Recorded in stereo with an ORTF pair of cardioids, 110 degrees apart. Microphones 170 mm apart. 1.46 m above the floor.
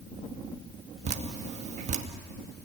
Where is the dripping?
40° right, 2 m.